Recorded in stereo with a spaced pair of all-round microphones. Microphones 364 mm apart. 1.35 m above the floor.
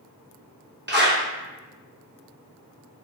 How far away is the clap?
About 1.0 m.